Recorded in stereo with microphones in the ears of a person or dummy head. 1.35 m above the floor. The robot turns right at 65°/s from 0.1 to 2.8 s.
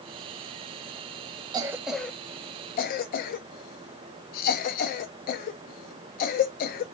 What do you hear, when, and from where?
1.5 s a cough: 25° right (ahead or behind), 0.5 m; by 6.8 s 50° left (ahead or behind), 0.5 m